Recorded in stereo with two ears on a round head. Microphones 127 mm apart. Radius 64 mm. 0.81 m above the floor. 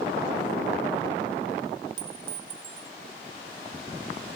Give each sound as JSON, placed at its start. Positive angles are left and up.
{"t": 2.0, "sound": "a clink", "side_deg": -40}